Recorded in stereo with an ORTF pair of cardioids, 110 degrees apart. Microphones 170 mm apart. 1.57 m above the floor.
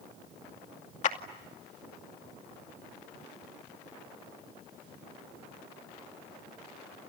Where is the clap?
45° left, 2.5 m.